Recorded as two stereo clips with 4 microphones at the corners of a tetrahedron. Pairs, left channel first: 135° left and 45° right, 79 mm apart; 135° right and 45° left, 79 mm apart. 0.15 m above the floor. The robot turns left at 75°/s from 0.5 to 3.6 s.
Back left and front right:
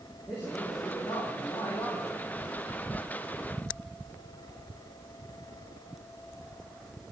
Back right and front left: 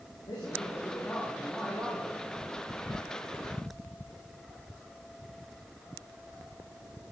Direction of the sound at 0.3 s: 160° right.